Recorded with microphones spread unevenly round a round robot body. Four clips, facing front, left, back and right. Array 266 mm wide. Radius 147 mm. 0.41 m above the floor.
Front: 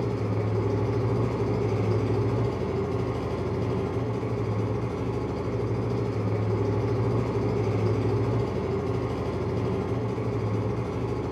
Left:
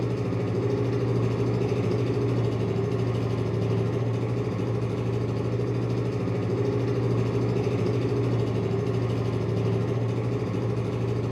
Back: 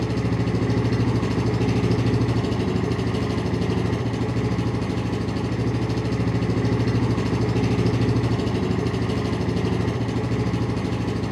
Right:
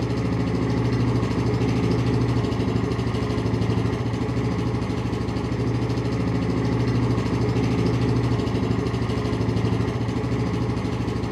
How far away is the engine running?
About 1.0 m.